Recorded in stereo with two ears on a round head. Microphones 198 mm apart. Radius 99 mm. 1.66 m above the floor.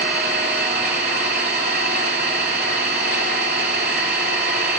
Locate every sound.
0.0 s an engine running: 50° right (ahead or behind), 3 m